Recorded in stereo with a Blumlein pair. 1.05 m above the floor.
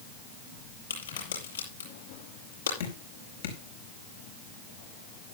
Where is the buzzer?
I don't hear a buzzer.